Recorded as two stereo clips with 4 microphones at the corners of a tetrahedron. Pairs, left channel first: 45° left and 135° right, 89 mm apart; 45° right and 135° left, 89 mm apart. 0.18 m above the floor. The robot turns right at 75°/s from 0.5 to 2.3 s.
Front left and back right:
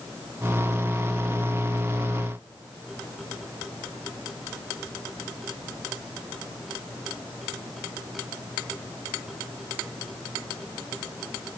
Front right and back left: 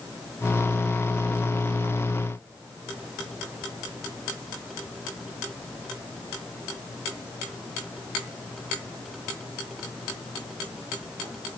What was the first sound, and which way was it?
Only background noise.